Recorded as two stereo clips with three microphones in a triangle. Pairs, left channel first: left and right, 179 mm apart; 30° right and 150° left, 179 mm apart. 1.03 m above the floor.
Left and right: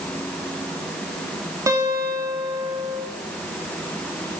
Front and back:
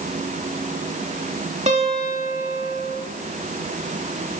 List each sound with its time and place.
1.7 s a guitar: 160° right, 2.5 m